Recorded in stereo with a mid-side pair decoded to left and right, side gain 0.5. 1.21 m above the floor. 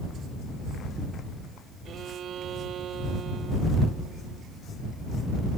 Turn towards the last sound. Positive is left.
turn(degrees=-55)